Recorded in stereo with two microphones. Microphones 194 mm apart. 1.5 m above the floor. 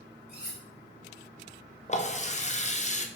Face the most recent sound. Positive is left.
turn(degrees=35)  # may be behind; listen again after turning